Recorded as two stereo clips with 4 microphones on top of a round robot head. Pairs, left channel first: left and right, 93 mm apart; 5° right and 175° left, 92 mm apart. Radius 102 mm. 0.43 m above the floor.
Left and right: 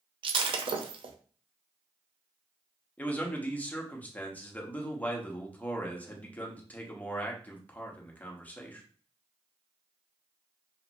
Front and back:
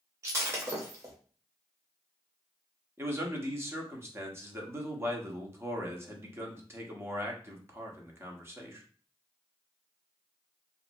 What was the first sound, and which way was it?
Breaking glass, 120° right.